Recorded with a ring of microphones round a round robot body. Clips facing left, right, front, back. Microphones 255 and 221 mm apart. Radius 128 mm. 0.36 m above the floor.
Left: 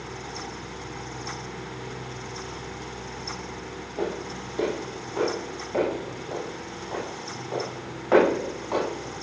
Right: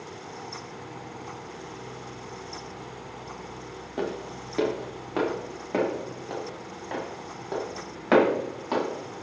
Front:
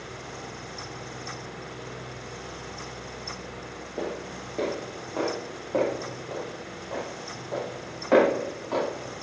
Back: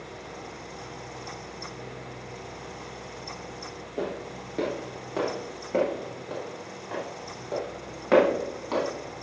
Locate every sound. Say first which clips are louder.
4.0 s footsteps: left 1 dB, back 1 dB; 95° right, 3.5 m; by 8.8 s 125° right, 7 m